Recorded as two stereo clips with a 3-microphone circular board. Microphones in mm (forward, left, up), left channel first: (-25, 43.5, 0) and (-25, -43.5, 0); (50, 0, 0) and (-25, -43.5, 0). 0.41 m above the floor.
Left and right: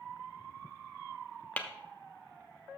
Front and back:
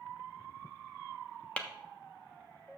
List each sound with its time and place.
1.6 s tapping: 70° left, 0.9 m